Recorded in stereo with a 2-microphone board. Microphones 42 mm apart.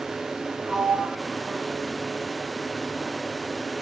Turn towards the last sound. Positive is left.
turn(degrees=-30)  # may be behind; listen again after turning